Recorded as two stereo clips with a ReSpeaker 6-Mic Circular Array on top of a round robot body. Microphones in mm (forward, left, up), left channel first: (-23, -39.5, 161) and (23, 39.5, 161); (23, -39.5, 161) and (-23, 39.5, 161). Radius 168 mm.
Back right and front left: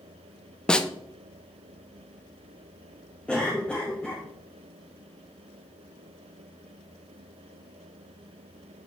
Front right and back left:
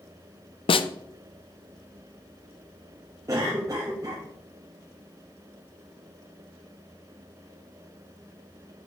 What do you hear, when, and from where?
0.7 s a snare drum: 40° right, 0.6 m
3.3 s a cough: 165° left, 1.7 m